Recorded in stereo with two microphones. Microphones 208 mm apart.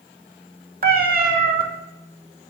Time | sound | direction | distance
0.8 | a cat meowing | 45° right (ahead or behind) | 0.9 m